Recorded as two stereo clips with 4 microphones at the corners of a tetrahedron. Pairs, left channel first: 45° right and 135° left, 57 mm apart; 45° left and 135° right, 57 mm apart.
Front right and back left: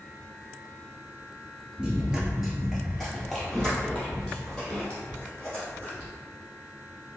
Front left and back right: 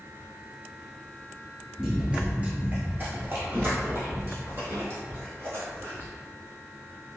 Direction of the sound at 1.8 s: 165° left.